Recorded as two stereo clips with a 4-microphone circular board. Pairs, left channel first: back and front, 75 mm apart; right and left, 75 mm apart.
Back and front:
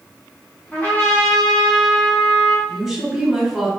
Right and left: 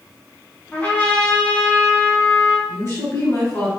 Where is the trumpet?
140° right, 1.5 m.